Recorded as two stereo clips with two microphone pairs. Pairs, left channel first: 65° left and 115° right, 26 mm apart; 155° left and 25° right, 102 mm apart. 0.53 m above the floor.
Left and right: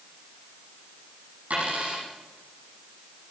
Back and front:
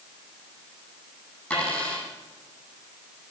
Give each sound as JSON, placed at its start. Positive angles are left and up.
{"t": 1.5, "sound": "a dropped coin", "azimuth_deg": -130, "distance_m": 8.0}